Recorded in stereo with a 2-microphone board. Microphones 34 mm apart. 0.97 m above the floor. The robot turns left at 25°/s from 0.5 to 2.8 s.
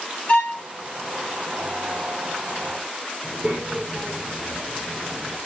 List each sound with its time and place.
0.3 s a violin: 40° left (ahead or behind), 5.5 m
3.2 s a child speaking: 45° right (ahead or behind), 2.5 m